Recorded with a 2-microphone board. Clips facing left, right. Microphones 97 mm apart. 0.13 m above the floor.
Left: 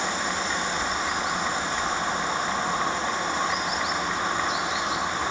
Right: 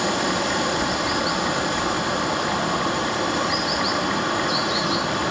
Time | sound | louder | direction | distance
0.0 | running water | right 6 dB | 70° right (ahead or behind) | 1.5 m